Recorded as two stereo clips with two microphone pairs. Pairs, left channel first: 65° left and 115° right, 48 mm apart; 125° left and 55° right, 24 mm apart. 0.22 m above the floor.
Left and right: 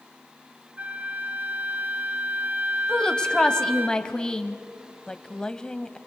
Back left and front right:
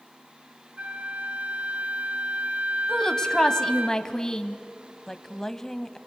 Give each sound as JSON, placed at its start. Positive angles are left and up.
{"t": 0.8, "sound": "a flute", "azimuth_deg": -60, "distance_m": 1.5}
{"t": 2.9, "sound": "a woman speaking", "azimuth_deg": 110, "distance_m": 1.1}
{"t": 5.1, "sound": "a woman speaking", "azimuth_deg": 100, "distance_m": 1.0}